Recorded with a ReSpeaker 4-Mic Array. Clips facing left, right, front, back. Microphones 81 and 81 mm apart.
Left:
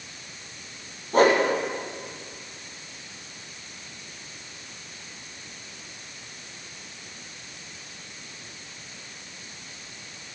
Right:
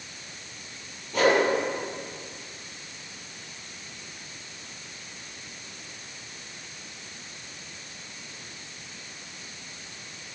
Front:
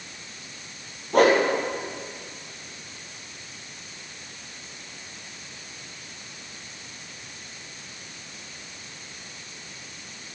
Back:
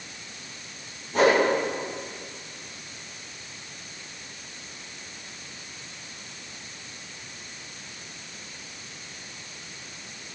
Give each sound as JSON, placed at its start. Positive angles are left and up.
{"t": 1.1, "sound": "a whoosh", "azimuth_deg": 35, "distance_m": 4.5}